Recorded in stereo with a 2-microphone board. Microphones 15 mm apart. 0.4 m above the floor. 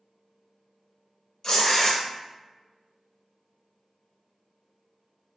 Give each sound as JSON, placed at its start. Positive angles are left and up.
{"t": 1.4, "sound": "tearing paper", "side_deg": 50, "distance_m": 1.0}